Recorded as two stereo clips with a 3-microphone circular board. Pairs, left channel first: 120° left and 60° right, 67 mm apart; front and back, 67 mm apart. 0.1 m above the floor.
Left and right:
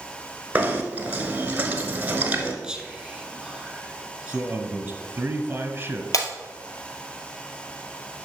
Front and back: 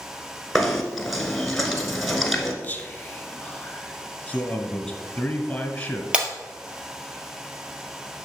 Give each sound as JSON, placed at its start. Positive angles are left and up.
{"t": 0.6, "sound": "knocking", "azimuth_deg": -85, "distance_m": 1.3}
{"t": 2.6, "sound": "whispering", "azimuth_deg": 5, "distance_m": 1.3}
{"t": 4.3, "sound": "a man speaking", "azimuth_deg": -55, "distance_m": 1.1}
{"t": 6.1, "sound": "breaking glass", "azimuth_deg": 110, "distance_m": 1.7}